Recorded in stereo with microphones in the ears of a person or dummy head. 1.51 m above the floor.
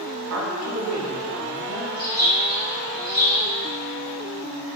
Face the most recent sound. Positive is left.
turn(degrees=-20)  # may be behind; listen again after turning